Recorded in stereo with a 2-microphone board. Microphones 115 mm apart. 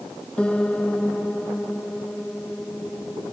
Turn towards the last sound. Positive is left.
turn(degrees=10)  # may be behind; listen again after turning